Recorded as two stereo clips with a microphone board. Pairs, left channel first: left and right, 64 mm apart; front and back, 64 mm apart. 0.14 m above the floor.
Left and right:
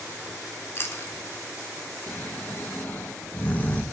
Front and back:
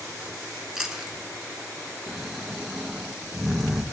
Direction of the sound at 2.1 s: 95° left.